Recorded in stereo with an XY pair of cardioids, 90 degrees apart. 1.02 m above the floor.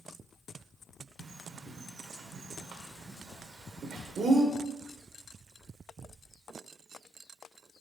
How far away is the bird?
About 1.5 m.